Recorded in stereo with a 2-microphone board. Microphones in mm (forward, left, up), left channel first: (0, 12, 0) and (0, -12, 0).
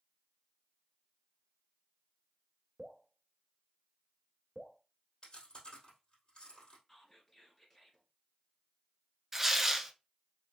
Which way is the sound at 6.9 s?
10° left (ahead or behind).